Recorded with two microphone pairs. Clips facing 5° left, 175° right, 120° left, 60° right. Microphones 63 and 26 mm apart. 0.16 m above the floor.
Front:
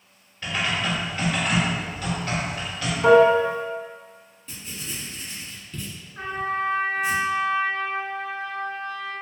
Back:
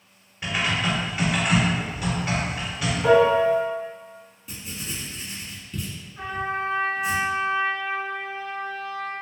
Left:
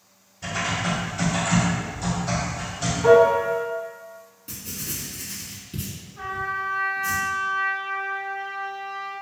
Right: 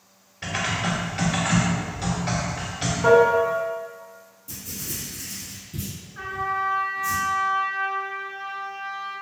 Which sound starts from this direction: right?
Typing on a keyboard, at 0.4 s.